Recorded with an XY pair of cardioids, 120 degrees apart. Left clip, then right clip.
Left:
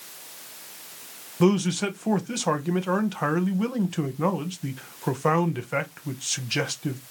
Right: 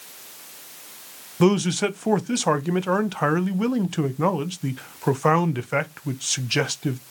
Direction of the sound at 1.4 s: 20° right.